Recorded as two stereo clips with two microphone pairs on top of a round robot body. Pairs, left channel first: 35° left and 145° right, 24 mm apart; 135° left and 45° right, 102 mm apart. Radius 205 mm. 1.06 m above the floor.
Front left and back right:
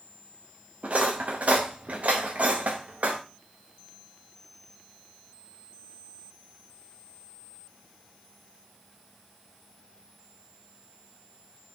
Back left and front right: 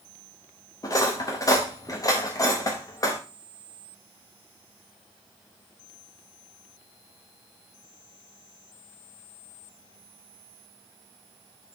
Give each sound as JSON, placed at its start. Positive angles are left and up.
{"t": 0.8, "sound": "cutlery clinking", "azimuth_deg": -170, "distance_m": 0.6}